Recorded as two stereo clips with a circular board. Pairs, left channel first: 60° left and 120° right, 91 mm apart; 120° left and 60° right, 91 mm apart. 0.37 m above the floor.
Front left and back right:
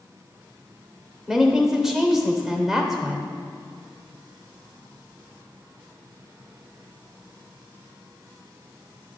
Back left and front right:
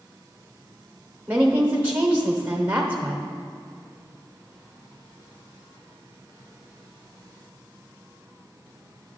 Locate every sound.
1.3 s a woman speaking: 40° right, 0.8 m